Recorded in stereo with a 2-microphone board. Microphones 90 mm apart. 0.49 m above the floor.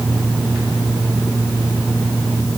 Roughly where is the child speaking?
I don't hear a child speaking.